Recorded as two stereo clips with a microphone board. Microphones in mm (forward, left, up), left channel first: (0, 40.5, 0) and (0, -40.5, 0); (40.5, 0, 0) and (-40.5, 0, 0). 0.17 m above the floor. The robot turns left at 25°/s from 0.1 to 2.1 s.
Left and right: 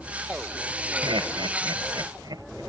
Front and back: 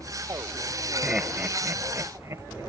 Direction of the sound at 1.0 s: 100° right.